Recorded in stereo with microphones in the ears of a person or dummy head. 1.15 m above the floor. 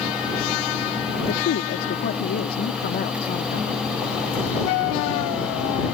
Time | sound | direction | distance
1.3 | a woman speaking | 65° left (ahead or behind) | ?